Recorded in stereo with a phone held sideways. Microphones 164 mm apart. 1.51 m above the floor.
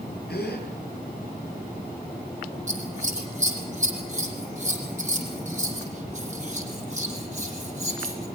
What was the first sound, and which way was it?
A gasp, 80° left.